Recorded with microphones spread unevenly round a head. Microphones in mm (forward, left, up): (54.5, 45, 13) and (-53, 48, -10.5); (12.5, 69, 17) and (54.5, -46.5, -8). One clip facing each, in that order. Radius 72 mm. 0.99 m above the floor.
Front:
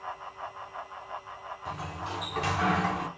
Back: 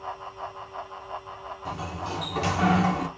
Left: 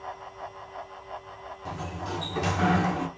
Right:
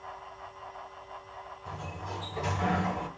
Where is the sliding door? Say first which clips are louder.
Back 4 dB, left 6 dB; 130° left, 1.6 m.